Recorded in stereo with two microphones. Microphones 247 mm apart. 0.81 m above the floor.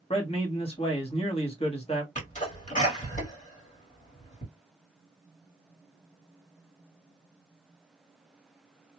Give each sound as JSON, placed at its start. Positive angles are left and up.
{"t": 0.1, "sound": "a man speaking", "side_deg": 25, "distance_m": 1.0}
{"t": 2.1, "sound": "a sneeze", "side_deg": 30, "distance_m": 1.7}